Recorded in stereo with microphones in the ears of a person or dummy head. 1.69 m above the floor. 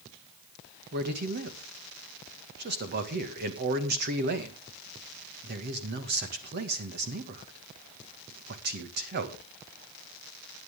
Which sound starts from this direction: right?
A man speaking, at 0.9 s.